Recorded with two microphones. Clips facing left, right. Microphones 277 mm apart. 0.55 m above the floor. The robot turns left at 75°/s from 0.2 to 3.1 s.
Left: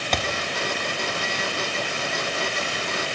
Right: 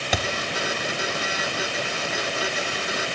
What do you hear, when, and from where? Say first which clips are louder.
0.1 s a thud: even; 5° right (ahead or behind), 0.5 m; by 0.2 s 10° right (ahead or behind), 0.5 m